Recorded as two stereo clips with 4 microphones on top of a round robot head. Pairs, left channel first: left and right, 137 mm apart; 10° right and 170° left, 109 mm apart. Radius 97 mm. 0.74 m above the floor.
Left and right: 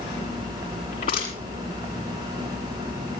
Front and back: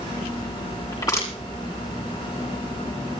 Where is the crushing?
50° left, 5.5 m.